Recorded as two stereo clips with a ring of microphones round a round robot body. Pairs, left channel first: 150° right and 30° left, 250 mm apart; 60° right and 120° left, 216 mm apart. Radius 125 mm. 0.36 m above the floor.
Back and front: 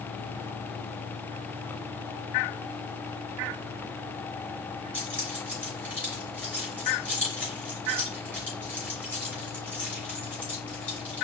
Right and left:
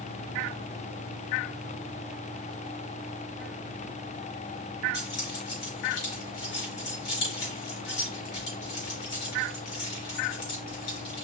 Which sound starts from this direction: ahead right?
Keys jangling, at 4.9 s.